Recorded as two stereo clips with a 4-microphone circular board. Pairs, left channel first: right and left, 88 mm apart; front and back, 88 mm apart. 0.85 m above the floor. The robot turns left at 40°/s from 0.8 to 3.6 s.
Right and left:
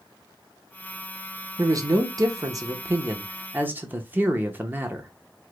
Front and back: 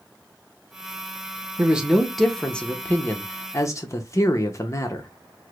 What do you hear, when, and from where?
1.6 s a man speaking: 115° left, 0.7 m; by 5.1 s 35° left, 0.7 m